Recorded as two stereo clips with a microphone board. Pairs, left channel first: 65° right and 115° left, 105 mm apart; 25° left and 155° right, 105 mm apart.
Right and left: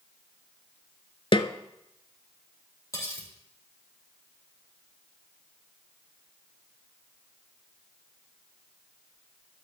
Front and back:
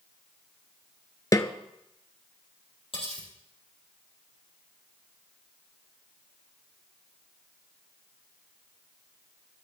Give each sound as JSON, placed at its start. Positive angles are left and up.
{"t": 1.3, "sound": "a snare drum", "azimuth_deg": -35, "distance_m": 0.5}
{"t": 2.9, "sound": "cutlery clinking", "azimuth_deg": -10, "distance_m": 4.0}